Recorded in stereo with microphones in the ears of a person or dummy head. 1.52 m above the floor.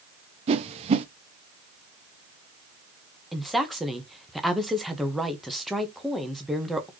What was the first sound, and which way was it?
A whoosh, 40° right (ahead or behind).